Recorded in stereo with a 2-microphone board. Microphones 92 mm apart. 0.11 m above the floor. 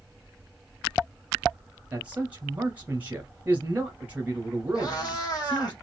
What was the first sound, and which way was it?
A man speaking, 15° right (ahead or behind).